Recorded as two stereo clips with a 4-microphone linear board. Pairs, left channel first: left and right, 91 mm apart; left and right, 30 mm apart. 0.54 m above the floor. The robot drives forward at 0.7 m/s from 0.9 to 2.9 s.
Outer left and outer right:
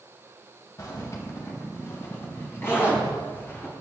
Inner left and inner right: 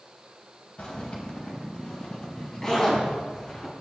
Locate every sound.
0.8 s a zipper: 40° left (ahead or behind), 2.5 m; by 3.7 s 30° left (ahead or behind), 3.5 m